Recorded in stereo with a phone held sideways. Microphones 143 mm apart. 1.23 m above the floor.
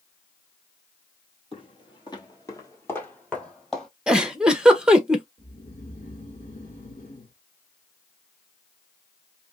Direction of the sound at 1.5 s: 40° left (ahead or behind).